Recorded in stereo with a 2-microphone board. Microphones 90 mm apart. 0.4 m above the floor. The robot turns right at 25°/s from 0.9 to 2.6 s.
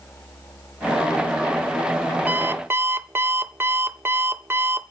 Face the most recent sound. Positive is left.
turn(degrees=-25)  # may be behind; listen again after turning